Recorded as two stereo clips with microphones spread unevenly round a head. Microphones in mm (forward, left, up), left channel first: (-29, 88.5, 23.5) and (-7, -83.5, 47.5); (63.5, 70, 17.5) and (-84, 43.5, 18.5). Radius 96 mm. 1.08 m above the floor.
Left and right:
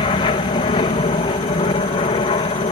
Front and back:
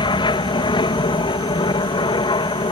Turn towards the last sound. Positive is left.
turn(degrees=55)